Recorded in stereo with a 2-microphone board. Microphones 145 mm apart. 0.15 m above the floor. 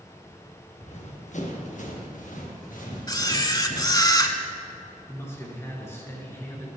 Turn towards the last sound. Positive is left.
turn(degrees=20)  # may be behind; listen again after turning